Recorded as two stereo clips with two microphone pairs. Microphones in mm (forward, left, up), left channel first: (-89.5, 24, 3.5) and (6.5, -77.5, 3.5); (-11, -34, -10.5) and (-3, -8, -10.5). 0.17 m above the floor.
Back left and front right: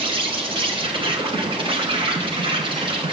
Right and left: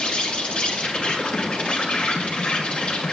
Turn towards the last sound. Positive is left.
turn(degrees=-80)